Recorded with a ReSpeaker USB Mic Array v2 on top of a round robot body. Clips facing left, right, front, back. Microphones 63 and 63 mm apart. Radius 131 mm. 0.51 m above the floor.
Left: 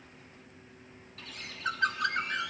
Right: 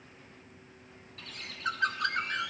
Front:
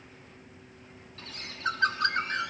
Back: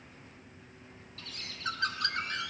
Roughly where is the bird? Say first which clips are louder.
Even, front 6 dB; ahead.